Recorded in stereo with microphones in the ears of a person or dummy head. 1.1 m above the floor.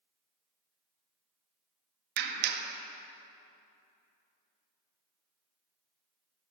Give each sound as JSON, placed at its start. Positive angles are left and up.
{"t": 2.2, "sound": "a clap", "side_deg": -50, "distance_m": 1.6}